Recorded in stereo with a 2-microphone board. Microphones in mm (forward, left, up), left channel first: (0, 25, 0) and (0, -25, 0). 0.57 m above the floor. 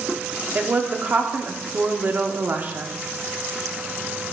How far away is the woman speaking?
About 0.8 m.